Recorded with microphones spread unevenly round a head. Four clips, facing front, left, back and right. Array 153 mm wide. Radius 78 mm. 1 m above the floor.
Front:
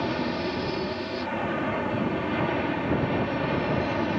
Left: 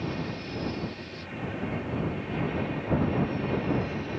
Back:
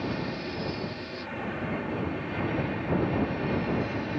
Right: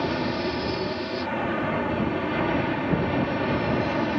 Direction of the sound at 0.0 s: 60° right.